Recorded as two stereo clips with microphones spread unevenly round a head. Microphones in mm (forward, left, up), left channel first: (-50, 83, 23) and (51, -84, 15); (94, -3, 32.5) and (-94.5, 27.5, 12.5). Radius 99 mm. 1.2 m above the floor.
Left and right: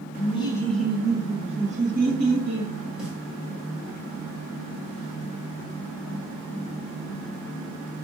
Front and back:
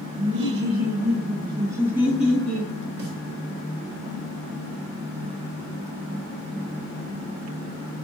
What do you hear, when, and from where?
0.2 s laughter: straight behind, 1.0 m; by 2.7 s 100° right, 2 m
3.0 s a snare drum: 145° right, 1.6 m